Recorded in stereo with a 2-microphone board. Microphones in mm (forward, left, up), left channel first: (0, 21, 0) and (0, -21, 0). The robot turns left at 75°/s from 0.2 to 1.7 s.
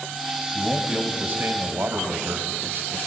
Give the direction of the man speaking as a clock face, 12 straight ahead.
12 o'clock.